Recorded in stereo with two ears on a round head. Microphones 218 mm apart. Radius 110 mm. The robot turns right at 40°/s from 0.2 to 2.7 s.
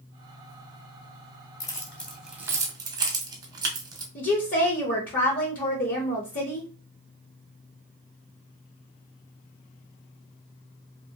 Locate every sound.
1.6 s keys jangling: 15° left (ahead or behind), 0.8 m; by 4.0 s 15° right (ahead or behind), 0.8 m
4.2 s a woman speaking: 35° left (ahead or behind), 0.6 m